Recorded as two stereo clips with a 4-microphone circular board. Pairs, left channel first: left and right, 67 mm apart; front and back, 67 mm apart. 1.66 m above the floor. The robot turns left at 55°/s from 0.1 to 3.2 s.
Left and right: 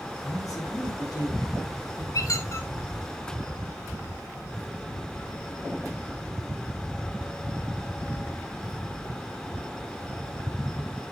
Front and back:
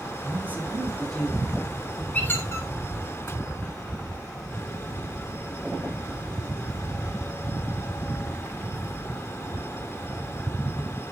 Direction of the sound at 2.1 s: 65° left.